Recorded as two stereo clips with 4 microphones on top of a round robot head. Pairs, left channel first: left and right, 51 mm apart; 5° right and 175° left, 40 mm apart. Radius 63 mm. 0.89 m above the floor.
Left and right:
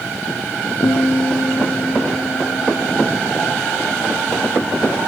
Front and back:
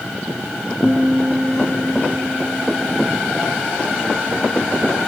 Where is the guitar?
70° left, 0.6 m.